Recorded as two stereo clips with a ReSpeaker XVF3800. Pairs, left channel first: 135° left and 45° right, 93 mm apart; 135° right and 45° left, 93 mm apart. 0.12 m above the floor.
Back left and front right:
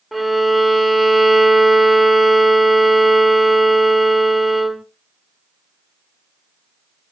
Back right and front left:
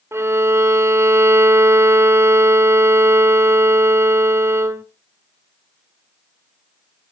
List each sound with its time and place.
0.1 s a violin: 40° left, 0.6 m